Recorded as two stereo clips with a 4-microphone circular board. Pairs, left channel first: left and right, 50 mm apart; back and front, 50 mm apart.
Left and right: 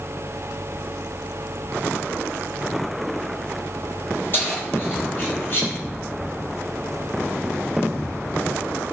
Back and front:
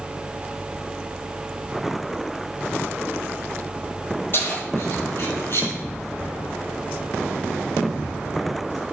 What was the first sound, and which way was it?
Keys jangling, 140° left.